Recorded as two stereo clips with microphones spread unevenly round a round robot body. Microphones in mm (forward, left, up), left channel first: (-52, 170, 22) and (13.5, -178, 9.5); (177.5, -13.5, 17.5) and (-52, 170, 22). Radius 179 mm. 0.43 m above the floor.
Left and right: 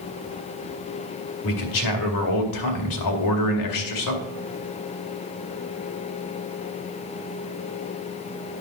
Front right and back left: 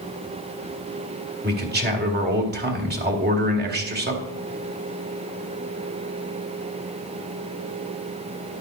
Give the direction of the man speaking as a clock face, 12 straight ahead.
9 o'clock.